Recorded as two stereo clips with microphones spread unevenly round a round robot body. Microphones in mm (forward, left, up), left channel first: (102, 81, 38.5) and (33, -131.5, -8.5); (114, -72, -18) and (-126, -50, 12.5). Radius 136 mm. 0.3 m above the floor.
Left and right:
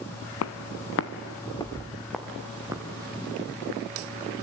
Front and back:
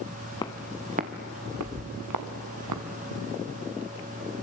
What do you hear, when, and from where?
0.4 s footsteps: 75° left, 1.1 m; by 2.8 s 170° left, 2.5 m